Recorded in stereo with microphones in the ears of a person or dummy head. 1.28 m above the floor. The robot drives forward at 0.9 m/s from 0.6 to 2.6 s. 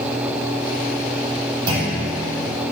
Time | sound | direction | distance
1.7 | a clunk | 30° right (ahead or behind) | 9.5 m